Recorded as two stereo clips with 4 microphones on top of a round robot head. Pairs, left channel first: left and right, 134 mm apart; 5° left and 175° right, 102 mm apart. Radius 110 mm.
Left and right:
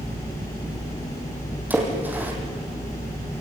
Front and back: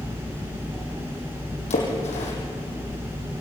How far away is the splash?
About 5.5 m.